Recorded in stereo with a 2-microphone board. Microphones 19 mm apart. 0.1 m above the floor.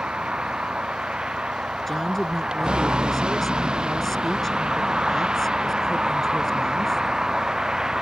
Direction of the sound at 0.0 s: 70° right (ahead or behind).